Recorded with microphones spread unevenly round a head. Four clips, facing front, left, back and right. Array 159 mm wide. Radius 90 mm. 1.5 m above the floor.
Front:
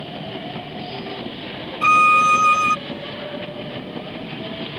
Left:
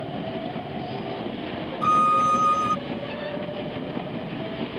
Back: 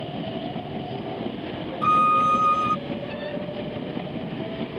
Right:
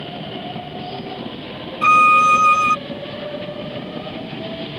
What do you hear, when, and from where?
1.8 s a violin: 30° right